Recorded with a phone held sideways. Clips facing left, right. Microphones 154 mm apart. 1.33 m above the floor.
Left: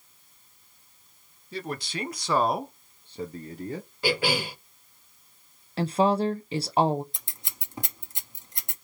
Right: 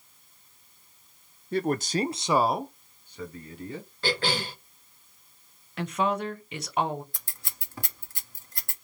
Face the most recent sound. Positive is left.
turn(degrees=20)  # may be behind; listen again after turning